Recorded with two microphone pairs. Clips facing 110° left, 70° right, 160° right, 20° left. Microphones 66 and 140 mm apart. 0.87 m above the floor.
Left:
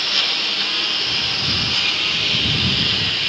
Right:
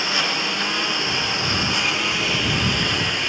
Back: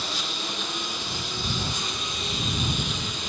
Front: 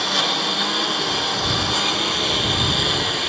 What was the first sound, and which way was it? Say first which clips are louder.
A lawn mower: right 2 dB, front 10 dB; straight ahead.